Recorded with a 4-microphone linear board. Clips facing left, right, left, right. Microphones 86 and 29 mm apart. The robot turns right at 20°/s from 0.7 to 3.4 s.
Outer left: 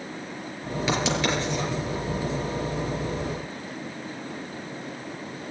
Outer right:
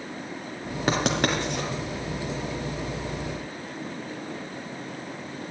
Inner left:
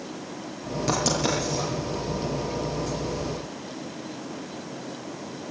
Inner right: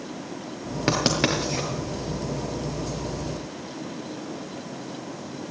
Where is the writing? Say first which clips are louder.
Outer right 1 dB, inner right 2 dB; 40° right (ahead or behind), 5.5 m; by 1.7 s 55° right (ahead or behind), 5.5 m.